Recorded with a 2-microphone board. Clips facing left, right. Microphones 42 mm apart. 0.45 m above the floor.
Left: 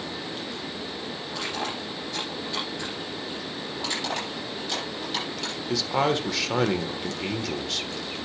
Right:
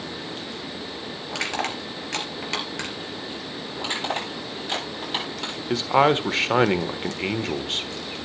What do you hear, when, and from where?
1.3 s crushing: 85° right, 3.5 m
3.8 s crushing: 35° right (ahead or behind), 9 m
5.7 s a man speaking: 35° right (ahead or behind), 1.2 m